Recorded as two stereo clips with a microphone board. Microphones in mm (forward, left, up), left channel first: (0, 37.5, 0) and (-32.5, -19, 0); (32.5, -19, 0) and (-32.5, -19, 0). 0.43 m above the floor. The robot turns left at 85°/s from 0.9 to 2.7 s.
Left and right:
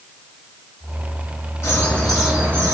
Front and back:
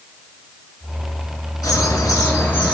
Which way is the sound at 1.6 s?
15° left.